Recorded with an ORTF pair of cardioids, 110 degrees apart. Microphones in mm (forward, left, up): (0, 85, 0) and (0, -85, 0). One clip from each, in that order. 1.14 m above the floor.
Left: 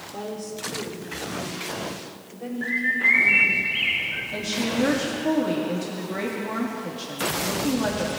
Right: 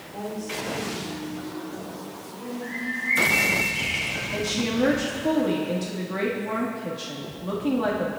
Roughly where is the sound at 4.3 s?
Ahead.